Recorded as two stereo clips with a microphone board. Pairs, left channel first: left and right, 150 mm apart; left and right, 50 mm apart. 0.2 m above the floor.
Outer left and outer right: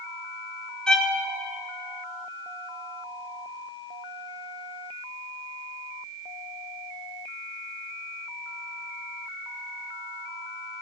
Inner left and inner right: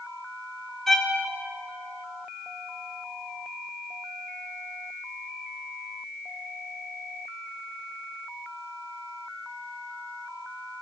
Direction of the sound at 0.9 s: 5° left (ahead or behind).